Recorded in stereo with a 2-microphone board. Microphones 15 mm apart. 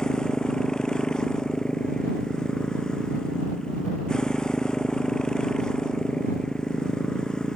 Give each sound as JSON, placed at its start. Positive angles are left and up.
{"t": 0.0, "sound": "a motorcycle", "side_deg": 60}